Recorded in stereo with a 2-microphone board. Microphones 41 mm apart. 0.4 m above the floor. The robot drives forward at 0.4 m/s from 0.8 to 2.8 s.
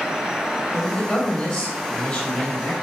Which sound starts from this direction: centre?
A man speaking, at 0.7 s.